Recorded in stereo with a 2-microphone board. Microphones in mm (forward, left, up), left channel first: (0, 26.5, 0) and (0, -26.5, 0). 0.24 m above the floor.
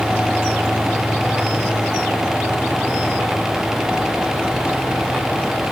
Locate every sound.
Only background noise.